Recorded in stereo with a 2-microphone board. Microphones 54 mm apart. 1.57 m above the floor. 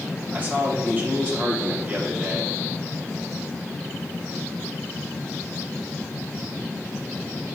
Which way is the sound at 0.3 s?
35° right (ahead or behind).